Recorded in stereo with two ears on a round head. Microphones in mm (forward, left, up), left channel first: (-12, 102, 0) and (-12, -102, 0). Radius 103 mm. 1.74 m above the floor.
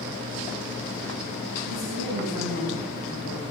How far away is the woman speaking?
About 3 m.